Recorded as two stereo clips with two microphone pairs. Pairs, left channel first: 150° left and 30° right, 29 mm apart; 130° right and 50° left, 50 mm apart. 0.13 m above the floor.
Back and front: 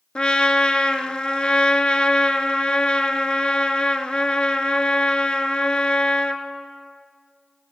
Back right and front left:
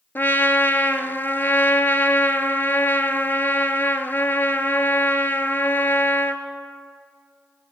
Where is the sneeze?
No sneeze in this recording.